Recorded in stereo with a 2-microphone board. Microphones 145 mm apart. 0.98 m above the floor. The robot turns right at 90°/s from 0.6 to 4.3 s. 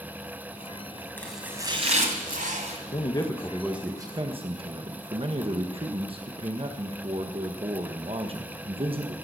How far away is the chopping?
About 2.0 m.